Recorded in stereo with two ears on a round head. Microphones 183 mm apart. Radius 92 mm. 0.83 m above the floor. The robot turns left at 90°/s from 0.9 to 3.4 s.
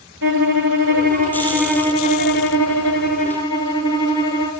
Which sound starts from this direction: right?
A violin, at 0.2 s.